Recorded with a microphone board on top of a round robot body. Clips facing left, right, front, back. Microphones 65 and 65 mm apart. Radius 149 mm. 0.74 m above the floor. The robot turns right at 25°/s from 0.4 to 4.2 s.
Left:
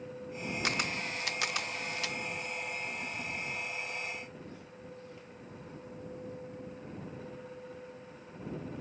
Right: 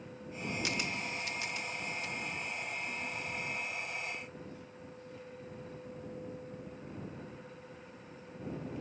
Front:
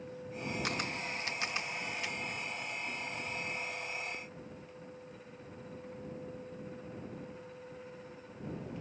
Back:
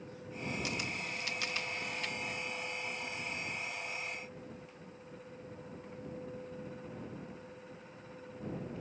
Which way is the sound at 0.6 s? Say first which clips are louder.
Left 5 dB, front 2 dB; 50° left.